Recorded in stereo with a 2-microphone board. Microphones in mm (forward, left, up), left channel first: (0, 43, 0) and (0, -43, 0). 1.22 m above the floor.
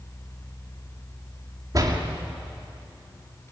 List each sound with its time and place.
1.7 s a door slam: 40° right (ahead or behind), 2.5 m